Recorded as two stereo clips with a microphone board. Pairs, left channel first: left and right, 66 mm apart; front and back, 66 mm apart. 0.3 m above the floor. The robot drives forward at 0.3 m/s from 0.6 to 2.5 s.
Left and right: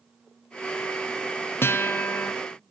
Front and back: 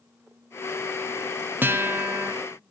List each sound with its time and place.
1.6 s a guitar: 130° left, 1.0 m; by 2.3 s 140° left, 1.1 m